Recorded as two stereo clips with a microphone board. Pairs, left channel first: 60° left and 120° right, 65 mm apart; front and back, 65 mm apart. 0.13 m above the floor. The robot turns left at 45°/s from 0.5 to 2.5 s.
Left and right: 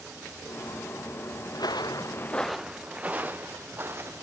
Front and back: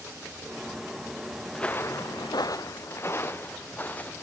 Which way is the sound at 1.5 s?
85° left.